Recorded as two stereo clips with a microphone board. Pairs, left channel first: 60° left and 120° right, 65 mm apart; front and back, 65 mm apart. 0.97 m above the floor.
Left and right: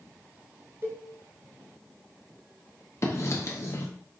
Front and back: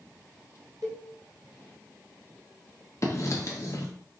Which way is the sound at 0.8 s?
170° right.